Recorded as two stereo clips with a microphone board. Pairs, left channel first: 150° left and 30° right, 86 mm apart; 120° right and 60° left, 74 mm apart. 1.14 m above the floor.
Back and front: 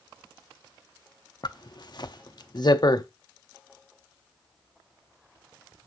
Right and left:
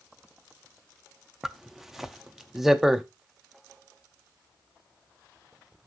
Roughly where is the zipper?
Behind left.